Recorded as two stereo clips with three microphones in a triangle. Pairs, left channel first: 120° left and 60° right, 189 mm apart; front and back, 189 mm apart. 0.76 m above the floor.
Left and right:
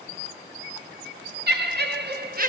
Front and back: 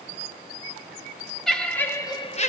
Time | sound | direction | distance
1.5 | laughter | 90° right | 1.9 m